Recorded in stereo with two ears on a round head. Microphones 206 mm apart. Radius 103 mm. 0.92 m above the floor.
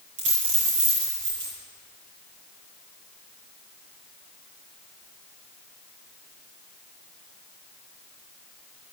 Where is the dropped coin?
55° right (ahead or behind), 8.5 m.